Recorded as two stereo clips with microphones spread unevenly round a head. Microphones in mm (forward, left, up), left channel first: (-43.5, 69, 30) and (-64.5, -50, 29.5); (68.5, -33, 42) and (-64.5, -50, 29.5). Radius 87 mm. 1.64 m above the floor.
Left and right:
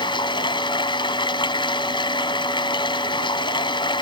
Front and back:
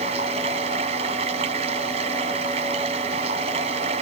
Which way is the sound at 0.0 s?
130° left.